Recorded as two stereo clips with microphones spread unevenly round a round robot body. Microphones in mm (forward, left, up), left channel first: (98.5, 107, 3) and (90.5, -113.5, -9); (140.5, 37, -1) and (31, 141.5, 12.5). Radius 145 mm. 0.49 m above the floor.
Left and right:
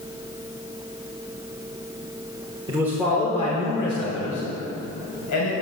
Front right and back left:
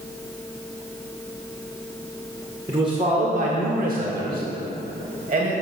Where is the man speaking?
150° right, 0.9 m; by 5.6 s 110° left, 2.5 m.